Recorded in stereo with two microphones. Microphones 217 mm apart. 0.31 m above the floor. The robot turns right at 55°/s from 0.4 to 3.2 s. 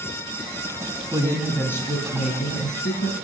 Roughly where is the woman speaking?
Ahead.